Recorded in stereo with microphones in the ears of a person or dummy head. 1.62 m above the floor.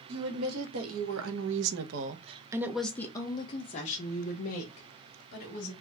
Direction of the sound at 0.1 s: 85° right.